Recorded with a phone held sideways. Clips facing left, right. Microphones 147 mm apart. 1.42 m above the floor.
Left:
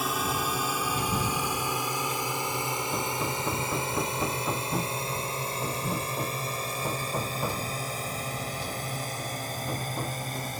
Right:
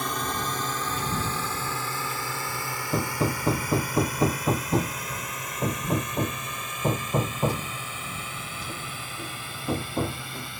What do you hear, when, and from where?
0.0 s a drone: 5° left (ahead or behind); by 10.6 s 40° left (ahead or behind)
2.9 s hammering: 25° right (ahead or behind)